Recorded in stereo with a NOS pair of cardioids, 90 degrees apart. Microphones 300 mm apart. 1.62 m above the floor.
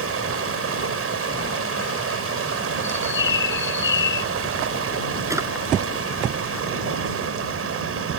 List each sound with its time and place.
0.0 s running water: 50° right
2.8 s a bird: 40° left
5.3 s a drawer: 10° right